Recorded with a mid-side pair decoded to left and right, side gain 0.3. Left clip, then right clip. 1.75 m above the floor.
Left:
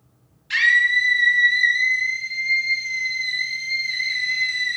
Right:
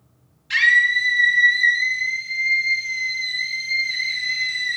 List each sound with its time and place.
0.5 s a scream: straight ahead, 3 m